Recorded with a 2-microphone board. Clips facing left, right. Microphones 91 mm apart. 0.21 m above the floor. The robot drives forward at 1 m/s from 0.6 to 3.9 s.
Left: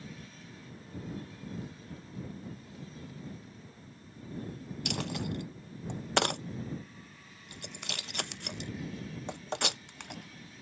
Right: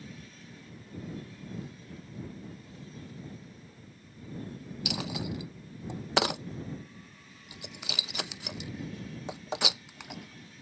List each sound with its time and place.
4.8 s a dropped coin: 5° right (ahead or behind)